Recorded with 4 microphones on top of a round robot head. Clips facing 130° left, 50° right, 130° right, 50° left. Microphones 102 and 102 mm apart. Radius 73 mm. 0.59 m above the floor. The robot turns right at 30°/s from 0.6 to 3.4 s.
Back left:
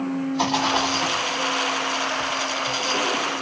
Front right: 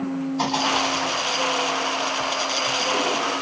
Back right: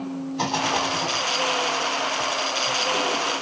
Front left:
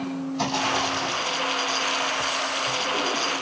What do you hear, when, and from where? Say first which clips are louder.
0.4 s a rattle: back left 1 dB, back right 2 dB; 145° right, 2.5 m; by 1.2 s 125° right, 2.5 m